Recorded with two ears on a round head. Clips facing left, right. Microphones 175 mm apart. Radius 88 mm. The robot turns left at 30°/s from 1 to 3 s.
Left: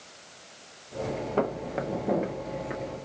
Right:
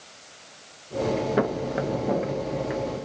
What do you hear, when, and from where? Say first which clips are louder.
1.4 s footsteps: right 4 dB; 15° right (ahead or behind), 0.5 m; by 3.0 s 10° right (ahead or behind), 0.8 m